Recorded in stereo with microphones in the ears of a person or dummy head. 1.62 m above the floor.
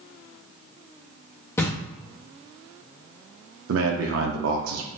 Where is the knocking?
15° left (ahead or behind), 0.7 m.